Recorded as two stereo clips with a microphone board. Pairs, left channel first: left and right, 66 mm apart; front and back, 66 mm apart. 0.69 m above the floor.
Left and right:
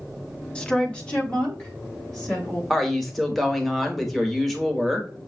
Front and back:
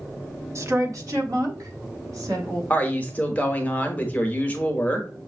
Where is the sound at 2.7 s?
5° left, 0.9 m.